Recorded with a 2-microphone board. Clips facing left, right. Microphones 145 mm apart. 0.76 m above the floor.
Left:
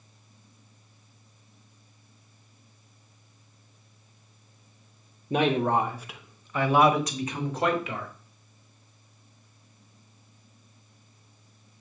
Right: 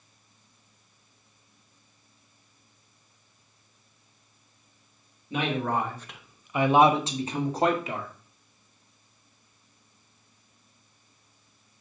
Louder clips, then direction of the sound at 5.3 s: Left 4 dB; 40° left (ahead or behind).